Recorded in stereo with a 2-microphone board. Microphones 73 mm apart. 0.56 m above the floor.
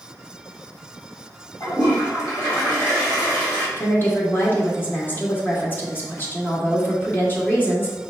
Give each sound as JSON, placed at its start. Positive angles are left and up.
{"t": 1.6, "sound": "a toilet flushing", "side_deg": 55, "distance_m": 2.0}
{"t": 3.8, "sound": "a woman speaking", "side_deg": 25, "distance_m": 1.3}